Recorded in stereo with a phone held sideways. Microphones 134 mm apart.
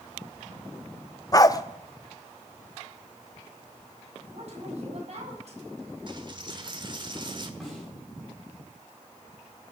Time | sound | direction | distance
1.3 | a dog barking | 30° left (ahead or behind) | 0.6 m
4.3 | a woman speaking | 50° right (ahead or behind) | 5.5 m
6.1 | a dropped coin | 35° right (ahead or behind) | 1.4 m
7.6 | a snare drum | centre (ahead or behind) | 7 m